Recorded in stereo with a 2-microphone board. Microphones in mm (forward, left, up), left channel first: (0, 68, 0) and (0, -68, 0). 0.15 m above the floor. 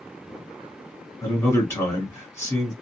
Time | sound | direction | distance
1.2 | a man speaking | 20° left (ahead or behind) | 1.6 m